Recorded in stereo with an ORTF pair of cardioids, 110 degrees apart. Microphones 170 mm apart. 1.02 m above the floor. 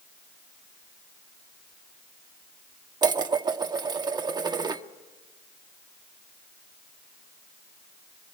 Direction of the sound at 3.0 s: 25° right.